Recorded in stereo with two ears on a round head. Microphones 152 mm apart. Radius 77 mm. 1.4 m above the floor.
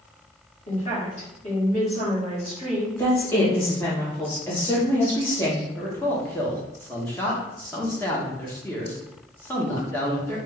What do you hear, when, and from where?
0.7 s a woman speaking: 35° left (ahead or behind), 1.9 m
3.0 s a woman speaking: 15° left (ahead or behind), 1.6 m
5.8 s a man speaking: 10° left (ahead or behind), 0.9 m